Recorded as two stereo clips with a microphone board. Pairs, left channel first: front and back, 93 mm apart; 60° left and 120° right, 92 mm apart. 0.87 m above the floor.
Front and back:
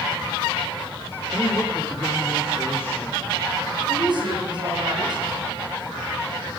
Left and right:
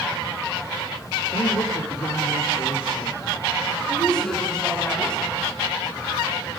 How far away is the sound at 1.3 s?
About 3 m.